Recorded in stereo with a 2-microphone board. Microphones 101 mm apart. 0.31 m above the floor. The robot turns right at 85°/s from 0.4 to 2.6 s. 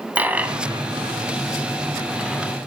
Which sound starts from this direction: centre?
A dropped coin, at 0.1 s.